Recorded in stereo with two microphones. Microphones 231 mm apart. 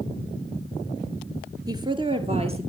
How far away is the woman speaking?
About 1.7 m.